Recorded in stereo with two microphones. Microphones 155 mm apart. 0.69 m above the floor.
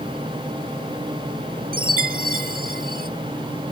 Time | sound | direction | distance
1.7 | a chime | 70° right (ahead or behind) | ?